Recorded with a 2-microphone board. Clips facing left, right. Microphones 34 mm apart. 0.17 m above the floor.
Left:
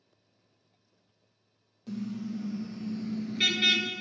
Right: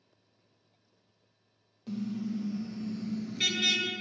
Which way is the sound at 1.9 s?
5° right (ahead or behind).